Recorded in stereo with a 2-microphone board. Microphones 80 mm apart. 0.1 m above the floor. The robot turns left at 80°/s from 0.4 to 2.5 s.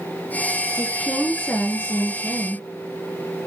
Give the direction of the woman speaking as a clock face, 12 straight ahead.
6 o'clock.